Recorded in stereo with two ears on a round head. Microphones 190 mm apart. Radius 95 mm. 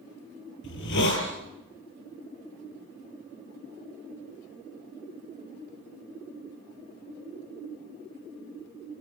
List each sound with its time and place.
0.6 s a hiss: 60° left (ahead or behind), 7 m